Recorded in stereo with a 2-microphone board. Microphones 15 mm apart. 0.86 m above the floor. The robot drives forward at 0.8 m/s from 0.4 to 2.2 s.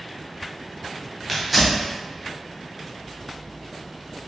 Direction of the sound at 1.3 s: 15° right (ahead or behind).